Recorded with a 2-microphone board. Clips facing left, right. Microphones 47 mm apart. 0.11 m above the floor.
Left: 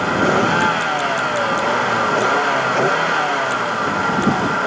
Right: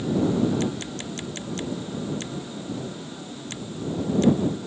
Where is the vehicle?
75° left (ahead or behind); by 4.7 s 85° left.